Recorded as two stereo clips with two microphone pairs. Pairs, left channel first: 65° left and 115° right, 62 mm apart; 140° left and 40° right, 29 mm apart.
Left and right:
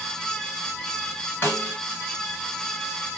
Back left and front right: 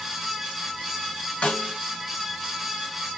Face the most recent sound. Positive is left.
turn(degrees=115)